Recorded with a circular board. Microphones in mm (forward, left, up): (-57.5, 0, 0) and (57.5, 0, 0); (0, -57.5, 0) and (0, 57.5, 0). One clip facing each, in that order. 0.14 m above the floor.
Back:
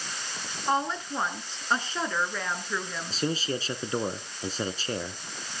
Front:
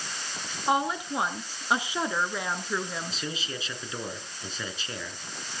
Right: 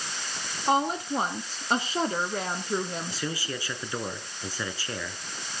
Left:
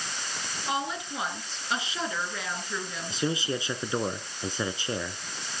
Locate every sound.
0.7 s a woman speaking: 75° right, 1.7 m
3.1 s a man speaking: 150° left, 1.5 m